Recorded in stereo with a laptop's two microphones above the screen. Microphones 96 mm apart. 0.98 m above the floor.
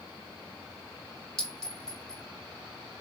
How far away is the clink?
About 0.8 m.